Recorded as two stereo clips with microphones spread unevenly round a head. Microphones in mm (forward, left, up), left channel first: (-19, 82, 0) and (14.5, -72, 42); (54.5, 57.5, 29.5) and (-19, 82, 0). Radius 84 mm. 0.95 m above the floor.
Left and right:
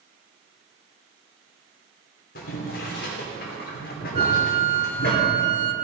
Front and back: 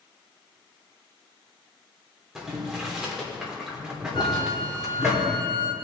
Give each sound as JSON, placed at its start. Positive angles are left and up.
{"t": 2.4, "sound": "boiling", "azimuth_deg": 80, "distance_m": 3.0}
{"t": 4.2, "sound": "a flute", "azimuth_deg": -25, "distance_m": 1.0}